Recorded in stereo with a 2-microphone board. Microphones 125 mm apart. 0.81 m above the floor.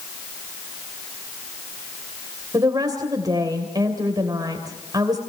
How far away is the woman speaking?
About 3 m.